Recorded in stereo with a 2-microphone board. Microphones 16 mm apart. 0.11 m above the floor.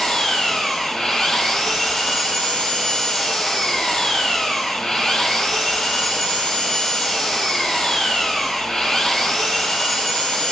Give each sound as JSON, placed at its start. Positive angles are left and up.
{"t": 0.0, "sound": "an engine running", "side_deg": 50, "distance_m": 1.4}